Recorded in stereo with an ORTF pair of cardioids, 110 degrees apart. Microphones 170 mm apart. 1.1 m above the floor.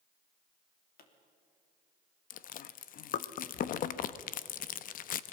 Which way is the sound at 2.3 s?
55° left.